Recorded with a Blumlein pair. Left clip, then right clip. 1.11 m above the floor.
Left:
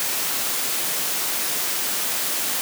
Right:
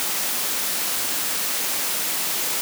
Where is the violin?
I don't hear a violin.